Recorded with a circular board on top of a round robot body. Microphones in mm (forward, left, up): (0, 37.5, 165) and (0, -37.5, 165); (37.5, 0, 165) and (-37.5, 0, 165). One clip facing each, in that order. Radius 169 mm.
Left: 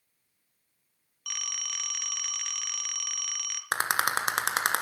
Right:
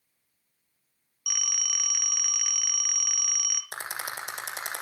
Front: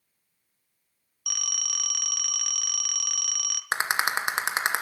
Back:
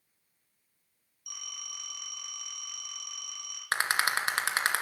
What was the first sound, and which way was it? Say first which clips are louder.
A phone ringing: right 2 dB, front 9 dB; 5° right.